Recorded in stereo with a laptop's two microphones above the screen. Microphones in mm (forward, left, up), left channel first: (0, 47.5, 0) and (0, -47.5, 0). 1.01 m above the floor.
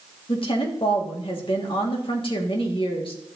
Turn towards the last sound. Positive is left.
turn(degrees=65)  # may be behind; listen again after turning